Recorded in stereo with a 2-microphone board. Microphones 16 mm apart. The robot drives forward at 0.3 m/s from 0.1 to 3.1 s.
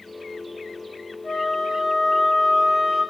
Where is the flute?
45° left (ahead or behind), 3.5 m; by 3.0 s 50° left (ahead or behind), 3.5 m.